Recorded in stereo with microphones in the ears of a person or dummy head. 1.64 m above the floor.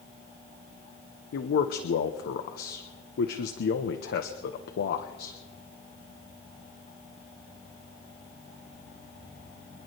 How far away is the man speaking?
About 1.0 m.